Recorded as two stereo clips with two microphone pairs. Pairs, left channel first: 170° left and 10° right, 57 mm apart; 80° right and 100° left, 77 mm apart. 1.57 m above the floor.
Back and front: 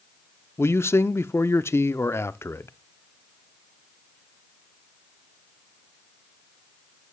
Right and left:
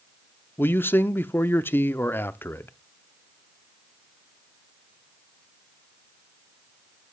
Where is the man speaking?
150° right, 0.6 m.